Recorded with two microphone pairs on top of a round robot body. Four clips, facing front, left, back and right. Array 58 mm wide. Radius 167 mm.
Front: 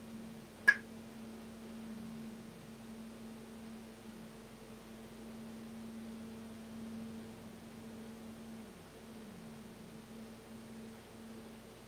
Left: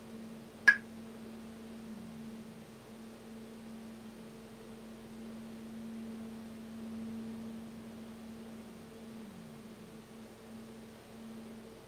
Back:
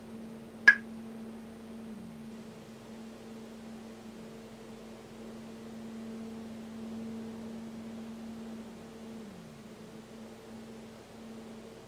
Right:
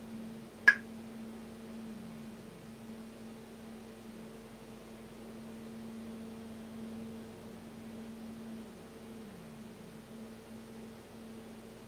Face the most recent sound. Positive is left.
turn(degrees=180)